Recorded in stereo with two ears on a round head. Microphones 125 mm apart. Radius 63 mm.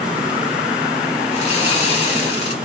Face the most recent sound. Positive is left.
turn(degrees=45)  # may be behind; listen again after turning